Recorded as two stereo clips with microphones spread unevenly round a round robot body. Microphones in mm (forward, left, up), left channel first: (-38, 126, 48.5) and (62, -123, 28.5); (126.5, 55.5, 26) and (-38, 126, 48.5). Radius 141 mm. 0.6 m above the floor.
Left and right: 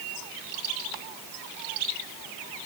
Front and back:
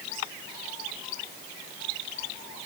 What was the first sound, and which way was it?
Only background noise.